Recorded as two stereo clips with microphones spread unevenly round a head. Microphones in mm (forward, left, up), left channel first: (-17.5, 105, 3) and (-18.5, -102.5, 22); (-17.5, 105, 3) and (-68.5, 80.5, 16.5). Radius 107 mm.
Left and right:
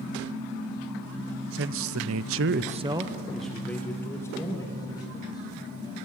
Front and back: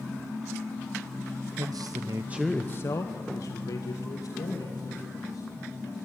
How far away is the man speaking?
About 1.1 m.